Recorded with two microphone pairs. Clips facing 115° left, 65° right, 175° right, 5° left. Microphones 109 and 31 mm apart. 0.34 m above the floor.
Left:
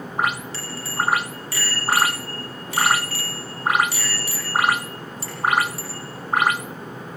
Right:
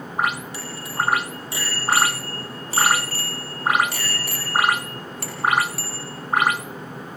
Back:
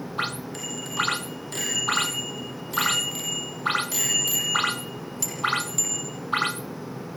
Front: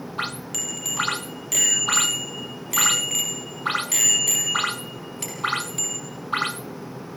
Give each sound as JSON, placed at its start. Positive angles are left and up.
{"t": 0.5, "sound": "a bicycle bell", "azimuth_deg": 10, "distance_m": 7.5}